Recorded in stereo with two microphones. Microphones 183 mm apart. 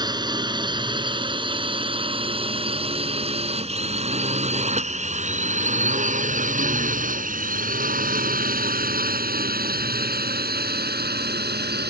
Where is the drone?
25° right (ahead or behind); by 11.9 s 65° right (ahead or behind).